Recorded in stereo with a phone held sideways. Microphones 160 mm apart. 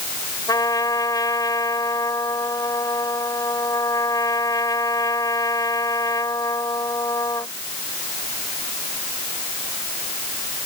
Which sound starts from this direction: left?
A trumpet, at 0.5 s.